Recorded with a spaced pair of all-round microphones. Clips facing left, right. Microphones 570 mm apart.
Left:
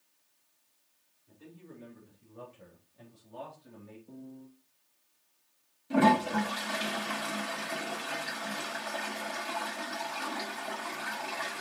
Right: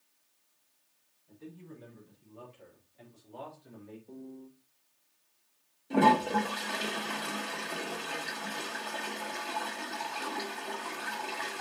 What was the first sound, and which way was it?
A man speaking, 75° left (ahead or behind).